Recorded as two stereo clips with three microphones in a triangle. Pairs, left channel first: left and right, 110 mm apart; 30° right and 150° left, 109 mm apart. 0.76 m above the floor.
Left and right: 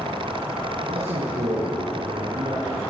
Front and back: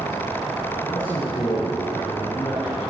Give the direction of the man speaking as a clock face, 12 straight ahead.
3 o'clock.